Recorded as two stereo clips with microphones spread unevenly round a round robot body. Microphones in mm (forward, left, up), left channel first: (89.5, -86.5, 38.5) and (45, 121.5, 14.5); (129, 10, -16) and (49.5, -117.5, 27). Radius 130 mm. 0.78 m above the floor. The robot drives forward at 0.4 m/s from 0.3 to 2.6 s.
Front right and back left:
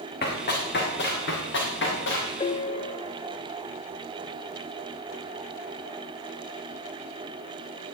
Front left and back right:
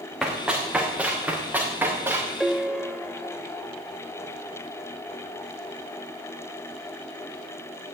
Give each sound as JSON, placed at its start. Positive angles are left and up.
{"t": 0.2, "sound": "running footsteps", "azimuth_deg": -40, "distance_m": 4.0}
{"t": 2.4, "sound": "a piano", "azimuth_deg": -60, "distance_m": 0.5}